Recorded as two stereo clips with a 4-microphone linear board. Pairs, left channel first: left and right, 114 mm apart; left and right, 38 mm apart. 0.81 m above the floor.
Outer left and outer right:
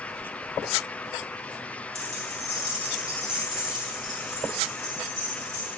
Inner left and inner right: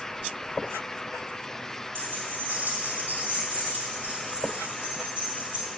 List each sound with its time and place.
1.9 s keys jangling: 75° right (ahead or behind), 2.5 m; by 5.7 s 25° right (ahead or behind), 5 m